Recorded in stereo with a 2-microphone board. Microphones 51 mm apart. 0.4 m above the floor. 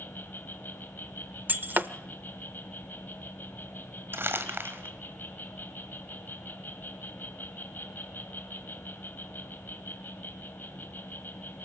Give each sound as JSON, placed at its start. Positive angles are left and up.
{"t": 0.0, "sound": "an insect", "side_deg": 40, "distance_m": 2.5}
{"t": 1.5, "sound": "breaking glass", "side_deg": -40, "distance_m": 0.6}
{"t": 4.1, "sound": "crumpling", "side_deg": -50, "distance_m": 1.5}